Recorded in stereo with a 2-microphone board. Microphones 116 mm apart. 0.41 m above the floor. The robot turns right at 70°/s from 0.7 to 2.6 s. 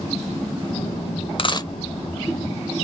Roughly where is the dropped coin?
Left.